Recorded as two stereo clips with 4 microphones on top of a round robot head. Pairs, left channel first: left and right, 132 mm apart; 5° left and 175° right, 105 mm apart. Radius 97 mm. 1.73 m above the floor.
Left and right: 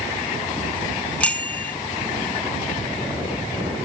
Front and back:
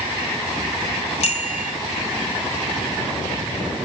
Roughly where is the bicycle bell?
Ahead.